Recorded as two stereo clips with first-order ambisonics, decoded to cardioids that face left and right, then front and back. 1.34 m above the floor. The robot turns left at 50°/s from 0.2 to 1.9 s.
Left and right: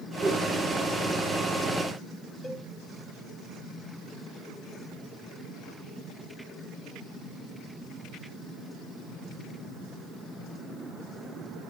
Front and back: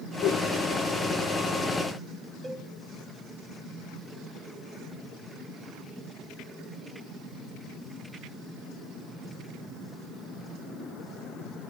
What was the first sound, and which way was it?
A whoosh, 5° right.